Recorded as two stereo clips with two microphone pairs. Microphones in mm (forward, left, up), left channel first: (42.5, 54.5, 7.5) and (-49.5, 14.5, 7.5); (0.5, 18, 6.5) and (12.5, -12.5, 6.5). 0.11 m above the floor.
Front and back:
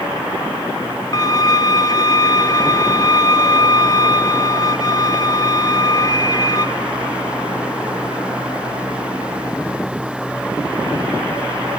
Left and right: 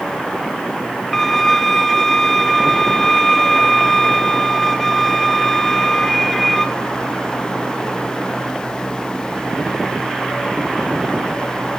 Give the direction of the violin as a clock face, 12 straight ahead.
11 o'clock.